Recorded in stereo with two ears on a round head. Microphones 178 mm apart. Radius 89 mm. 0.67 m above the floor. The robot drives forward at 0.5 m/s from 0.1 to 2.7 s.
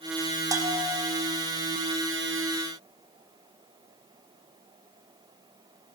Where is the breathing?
I don't hear breathing.